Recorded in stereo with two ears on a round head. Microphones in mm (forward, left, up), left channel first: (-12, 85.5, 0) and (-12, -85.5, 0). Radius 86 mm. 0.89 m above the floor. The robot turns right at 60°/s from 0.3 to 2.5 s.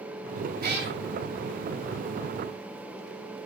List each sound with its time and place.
0.6 s a cat meowing: 50° right (ahead or behind), 0.7 m; by 0.9 s 70° right (ahead or behind), 0.7 m